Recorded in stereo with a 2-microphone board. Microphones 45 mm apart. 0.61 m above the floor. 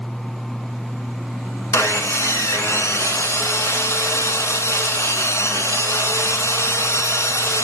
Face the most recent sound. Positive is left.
turn(degrees=85)